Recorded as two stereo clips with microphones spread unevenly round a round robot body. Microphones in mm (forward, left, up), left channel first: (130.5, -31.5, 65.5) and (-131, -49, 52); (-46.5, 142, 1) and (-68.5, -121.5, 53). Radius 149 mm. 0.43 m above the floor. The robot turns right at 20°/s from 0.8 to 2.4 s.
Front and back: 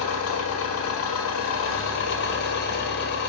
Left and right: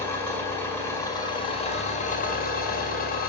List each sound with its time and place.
0.0 s an engine running: 15° left, 1.6 m; by 3.3 s 45° left, 1.6 m